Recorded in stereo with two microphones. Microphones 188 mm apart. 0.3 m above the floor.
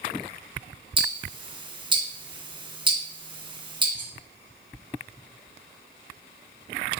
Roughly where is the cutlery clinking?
Left.